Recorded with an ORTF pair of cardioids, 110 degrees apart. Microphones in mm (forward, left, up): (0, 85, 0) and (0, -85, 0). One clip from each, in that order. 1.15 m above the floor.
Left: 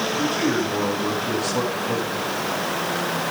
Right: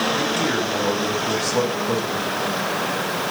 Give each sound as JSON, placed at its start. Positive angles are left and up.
{"t": 0.2, "sound": "a man speaking", "azimuth_deg": -35, "distance_m": 8.5}